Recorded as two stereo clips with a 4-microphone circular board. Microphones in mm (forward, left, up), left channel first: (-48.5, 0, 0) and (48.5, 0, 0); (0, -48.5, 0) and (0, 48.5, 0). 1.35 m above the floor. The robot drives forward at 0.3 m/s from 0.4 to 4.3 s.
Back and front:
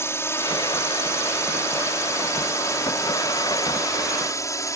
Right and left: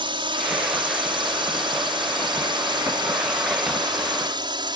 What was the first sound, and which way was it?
A drone, 120° left.